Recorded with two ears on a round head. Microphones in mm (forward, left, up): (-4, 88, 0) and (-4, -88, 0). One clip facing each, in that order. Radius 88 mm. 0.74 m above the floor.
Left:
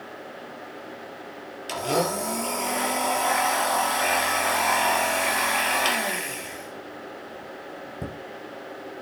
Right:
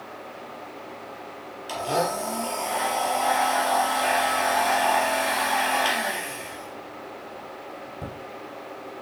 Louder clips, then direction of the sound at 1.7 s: Left 1 dB; 30° left (ahead or behind).